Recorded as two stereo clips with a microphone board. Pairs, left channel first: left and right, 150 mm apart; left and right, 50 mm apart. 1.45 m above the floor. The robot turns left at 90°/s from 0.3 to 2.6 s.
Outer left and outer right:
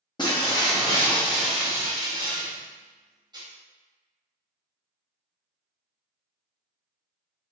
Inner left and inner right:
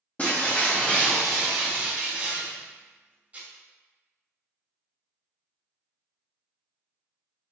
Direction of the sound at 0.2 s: 30° left (ahead or behind).